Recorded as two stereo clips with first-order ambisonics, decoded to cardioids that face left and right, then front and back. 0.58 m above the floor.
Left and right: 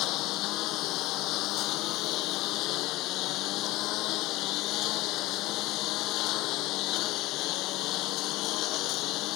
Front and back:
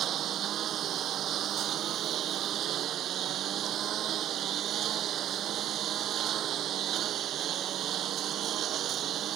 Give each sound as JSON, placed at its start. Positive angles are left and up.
{"t": 0.0, "sound": "a lawn mower", "azimuth_deg": 125}